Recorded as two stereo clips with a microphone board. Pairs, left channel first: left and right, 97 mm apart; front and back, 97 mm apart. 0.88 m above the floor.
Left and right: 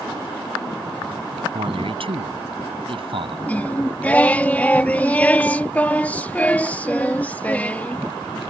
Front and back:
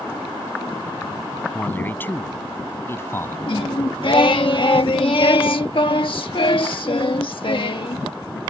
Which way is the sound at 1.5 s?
70° right.